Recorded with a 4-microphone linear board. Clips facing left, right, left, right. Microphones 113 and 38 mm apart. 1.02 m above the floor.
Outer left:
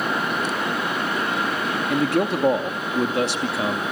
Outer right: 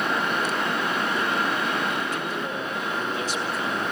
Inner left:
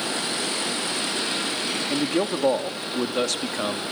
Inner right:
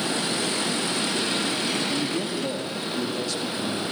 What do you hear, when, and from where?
1.9 s a man speaking: 70° left (ahead or behind), 2 m